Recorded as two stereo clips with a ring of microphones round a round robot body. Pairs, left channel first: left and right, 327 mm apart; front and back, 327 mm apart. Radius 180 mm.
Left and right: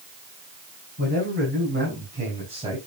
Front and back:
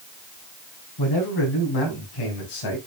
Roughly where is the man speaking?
Ahead right.